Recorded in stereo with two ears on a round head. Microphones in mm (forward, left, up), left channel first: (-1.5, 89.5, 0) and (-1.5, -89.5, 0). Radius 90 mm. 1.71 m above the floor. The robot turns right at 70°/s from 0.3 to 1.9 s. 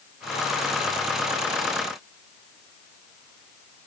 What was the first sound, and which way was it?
Only background noise.